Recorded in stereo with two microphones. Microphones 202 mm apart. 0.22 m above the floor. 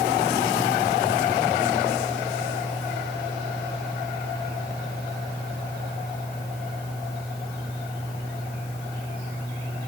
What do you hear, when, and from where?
Only background noise.